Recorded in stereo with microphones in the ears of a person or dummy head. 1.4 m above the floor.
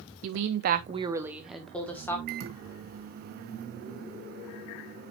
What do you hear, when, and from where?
0.2 s a woman speaking: 90° right, 0.9 m; by 2.2 s 10° left (ahead or behind), 1.9 m
2.3 s a microwave: 55° right (ahead or behind), 0.8 m